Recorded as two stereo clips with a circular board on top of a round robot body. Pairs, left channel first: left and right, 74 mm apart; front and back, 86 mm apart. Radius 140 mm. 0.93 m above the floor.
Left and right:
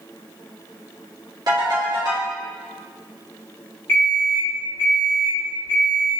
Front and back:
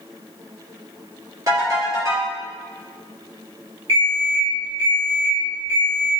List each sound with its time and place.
1.5 s a ringtone: 130° right, 1.6 m
3.9 s an alarm clock: 150° left, 0.9 m